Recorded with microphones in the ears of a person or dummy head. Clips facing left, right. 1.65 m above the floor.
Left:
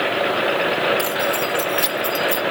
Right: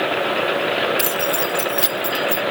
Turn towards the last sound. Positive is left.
turn(degrees=5)  # may be behind; listen again after turning